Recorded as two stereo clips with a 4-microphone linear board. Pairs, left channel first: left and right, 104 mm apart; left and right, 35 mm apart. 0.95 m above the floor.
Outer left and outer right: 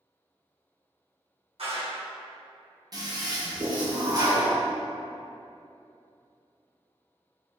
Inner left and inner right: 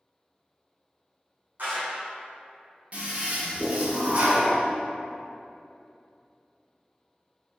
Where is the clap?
65° right (ahead or behind), 1.0 m.